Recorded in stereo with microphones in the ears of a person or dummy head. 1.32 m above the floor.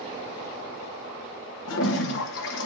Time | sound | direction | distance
1.7 | a toilet flushing | 70° left (ahead or behind) | 0.9 m